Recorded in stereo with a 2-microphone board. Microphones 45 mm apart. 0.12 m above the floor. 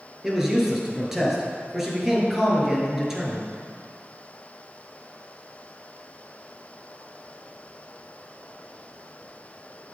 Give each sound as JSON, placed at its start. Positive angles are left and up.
{"t": 0.2, "sound": "a man speaking", "side_deg": -10, "distance_m": 2.5}